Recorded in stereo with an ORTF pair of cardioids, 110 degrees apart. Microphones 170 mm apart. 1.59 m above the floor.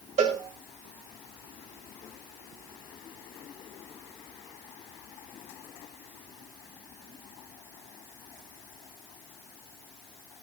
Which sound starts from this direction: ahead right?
A cowbell, at 0.2 s.